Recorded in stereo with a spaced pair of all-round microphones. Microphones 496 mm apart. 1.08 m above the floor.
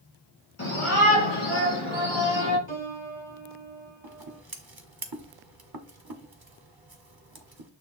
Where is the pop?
I don't hear a pop.